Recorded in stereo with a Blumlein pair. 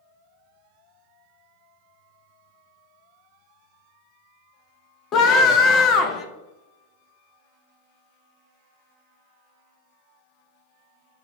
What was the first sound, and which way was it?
A scream, 30° left.